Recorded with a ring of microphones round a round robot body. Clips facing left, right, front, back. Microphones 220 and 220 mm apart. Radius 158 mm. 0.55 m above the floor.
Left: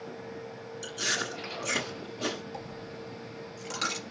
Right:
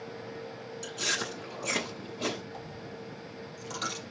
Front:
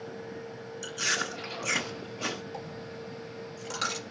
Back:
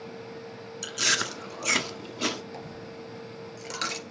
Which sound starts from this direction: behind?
Chewing, at 0.8 s.